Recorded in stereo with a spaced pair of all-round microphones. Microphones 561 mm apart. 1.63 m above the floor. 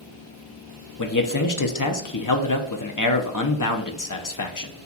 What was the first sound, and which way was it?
A man speaking, 35° left (ahead or behind).